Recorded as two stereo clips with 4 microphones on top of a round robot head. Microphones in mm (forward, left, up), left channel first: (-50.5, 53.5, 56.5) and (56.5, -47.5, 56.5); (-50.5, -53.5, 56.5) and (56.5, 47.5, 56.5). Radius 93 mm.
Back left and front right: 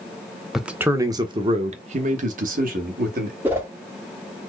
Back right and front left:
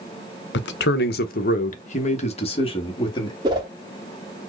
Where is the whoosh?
15° left, 0.8 m.